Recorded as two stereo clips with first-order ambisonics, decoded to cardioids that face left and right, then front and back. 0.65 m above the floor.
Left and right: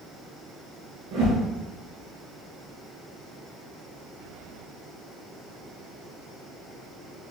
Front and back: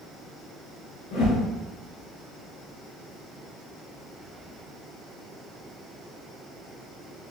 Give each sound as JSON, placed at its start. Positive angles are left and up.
{"t": 1.1, "sound": "a whoosh", "azimuth_deg": -40, "distance_m": 1.3}